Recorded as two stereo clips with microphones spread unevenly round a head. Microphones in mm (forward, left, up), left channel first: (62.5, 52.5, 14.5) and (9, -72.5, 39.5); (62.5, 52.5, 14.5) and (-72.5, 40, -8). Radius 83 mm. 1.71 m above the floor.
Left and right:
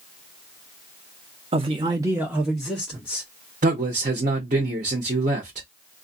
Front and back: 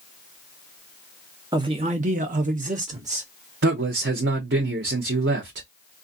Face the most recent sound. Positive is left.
turn(degrees=-160)